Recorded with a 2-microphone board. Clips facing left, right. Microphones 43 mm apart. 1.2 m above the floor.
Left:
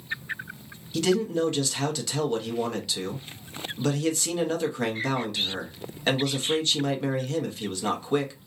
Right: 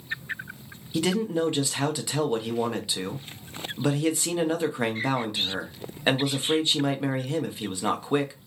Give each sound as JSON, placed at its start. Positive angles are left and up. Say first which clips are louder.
{"t": 0.9, "sound": "a man speaking", "louder": "left 1 dB", "side_deg": -15, "distance_m": 0.7}